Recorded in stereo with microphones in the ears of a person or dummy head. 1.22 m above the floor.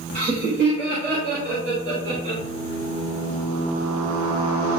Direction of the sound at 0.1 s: 60° right (ahead or behind).